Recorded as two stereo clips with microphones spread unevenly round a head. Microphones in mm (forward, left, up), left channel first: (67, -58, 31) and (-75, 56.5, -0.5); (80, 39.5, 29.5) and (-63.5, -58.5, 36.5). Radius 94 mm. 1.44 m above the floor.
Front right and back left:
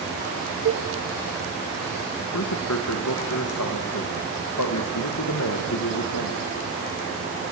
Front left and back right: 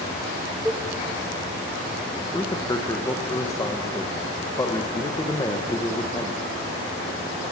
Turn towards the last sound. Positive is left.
turn(degrees=-35)